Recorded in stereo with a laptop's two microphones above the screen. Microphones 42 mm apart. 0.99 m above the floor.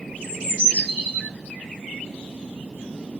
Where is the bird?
40° left (ahead or behind), 1.1 m.